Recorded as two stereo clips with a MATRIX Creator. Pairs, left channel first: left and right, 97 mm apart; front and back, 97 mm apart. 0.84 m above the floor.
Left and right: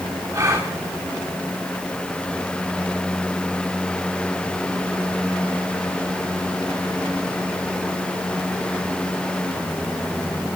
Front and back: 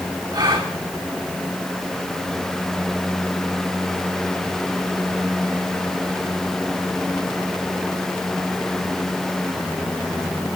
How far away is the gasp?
About 2.5 m.